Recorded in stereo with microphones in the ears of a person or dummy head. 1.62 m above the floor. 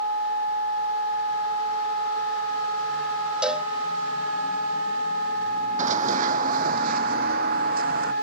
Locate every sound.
3.4 s a cowbell: centre (ahead or behind)
5.8 s running footsteps: 45° right (ahead or behind); by 8.1 s 60° right (ahead or behind)